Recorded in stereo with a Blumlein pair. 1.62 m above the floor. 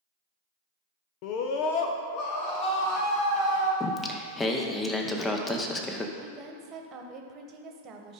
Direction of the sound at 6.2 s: 30° right.